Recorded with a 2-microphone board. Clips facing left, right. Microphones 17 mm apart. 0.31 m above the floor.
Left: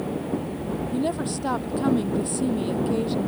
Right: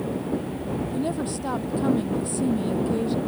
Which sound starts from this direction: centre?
A woman speaking, at 0.9 s.